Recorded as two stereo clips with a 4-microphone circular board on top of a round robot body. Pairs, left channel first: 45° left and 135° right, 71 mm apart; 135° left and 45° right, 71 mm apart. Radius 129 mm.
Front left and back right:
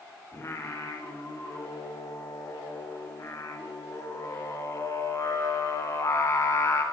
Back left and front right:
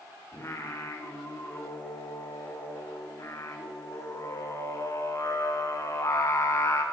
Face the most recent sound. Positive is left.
turn(degrees=90)